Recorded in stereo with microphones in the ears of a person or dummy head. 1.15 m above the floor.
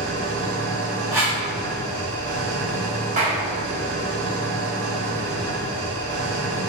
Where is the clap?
35° right (ahead or behind), 1.5 m.